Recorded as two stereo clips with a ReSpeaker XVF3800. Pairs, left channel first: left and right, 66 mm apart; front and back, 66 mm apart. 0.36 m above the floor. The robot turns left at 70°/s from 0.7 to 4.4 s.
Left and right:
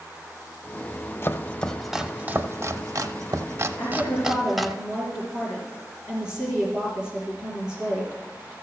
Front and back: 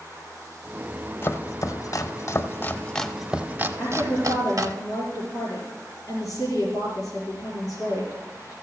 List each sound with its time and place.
1.2 s chopping: 40° left, 0.8 m; by 4.8 s straight behind, 0.8 m
3.8 s a woman speaking: 85° left, 5 m; by 8.5 s 40° left, 5 m